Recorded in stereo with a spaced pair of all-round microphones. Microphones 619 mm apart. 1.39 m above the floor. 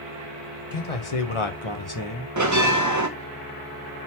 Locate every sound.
0.7 s a man speaking: 70° left (ahead or behind), 0.9 m; by 2.3 s 30° left (ahead or behind), 1.0 m
2.4 s a bell: 30° right (ahead or behind), 0.8 m